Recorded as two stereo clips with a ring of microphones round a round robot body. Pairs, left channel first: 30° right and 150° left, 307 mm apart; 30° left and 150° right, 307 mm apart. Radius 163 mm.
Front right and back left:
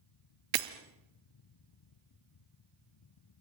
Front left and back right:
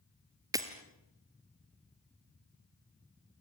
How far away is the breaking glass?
About 2 m.